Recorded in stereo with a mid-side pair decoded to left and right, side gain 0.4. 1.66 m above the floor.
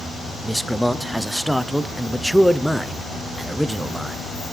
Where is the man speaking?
Straight ahead, 0.9 m.